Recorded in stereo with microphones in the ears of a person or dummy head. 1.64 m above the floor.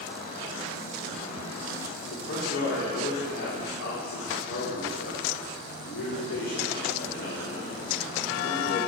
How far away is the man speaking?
About 4 m.